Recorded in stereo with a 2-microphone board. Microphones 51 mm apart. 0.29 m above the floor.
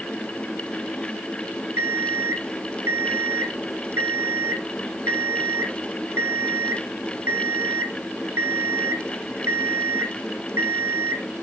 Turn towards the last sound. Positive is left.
turn(degrees=-55)  # may be behind; listen again after turning